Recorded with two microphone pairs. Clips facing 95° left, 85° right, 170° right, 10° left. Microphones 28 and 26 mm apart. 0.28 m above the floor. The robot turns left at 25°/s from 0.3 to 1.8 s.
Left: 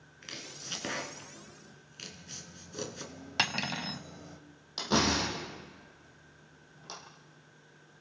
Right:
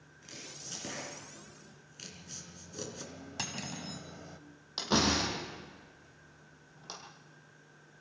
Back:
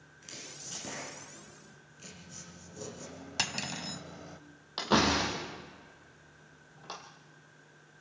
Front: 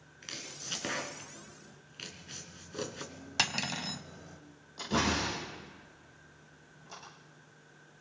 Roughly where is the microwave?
Behind right.